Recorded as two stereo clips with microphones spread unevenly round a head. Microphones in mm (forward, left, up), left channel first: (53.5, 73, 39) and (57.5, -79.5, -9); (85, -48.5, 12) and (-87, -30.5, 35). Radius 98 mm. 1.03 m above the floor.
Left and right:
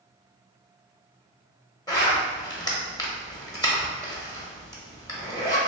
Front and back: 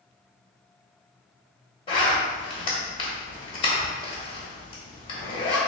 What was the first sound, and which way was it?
A zipper, 55° left.